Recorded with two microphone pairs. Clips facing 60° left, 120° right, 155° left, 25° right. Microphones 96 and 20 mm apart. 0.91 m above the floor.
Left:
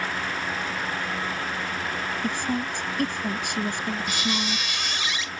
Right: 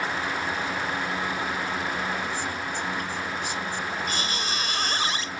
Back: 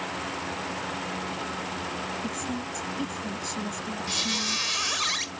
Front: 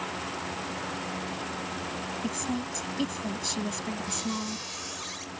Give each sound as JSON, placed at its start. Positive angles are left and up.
{"t": 2.2, "sound": "a woman speaking", "azimuth_deg": 30}
{"t": 4.1, "sound": "a squeak", "azimuth_deg": -170}